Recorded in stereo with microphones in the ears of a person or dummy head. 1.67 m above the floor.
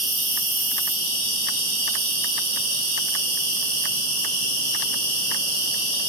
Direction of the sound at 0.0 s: 70° right (ahead or behind).